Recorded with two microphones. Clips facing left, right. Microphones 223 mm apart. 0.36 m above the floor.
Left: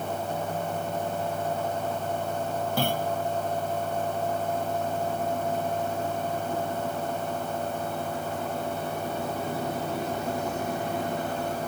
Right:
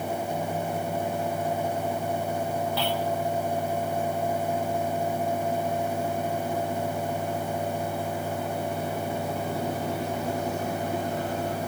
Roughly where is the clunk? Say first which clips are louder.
Even; left.